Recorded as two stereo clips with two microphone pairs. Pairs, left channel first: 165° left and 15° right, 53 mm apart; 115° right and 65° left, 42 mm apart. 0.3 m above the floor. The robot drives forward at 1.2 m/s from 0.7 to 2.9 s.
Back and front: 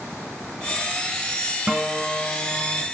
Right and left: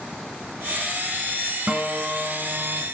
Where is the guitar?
40° left, 1.1 m; by 2.8 s 150° left, 1.3 m.